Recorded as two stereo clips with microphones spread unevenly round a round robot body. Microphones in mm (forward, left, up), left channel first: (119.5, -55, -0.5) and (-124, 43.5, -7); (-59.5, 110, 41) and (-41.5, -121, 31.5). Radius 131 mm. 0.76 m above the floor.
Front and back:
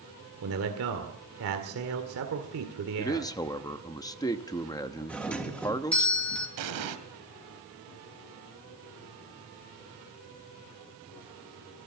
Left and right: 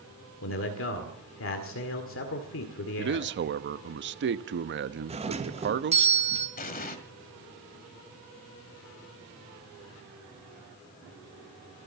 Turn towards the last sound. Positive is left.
turn(degrees=150)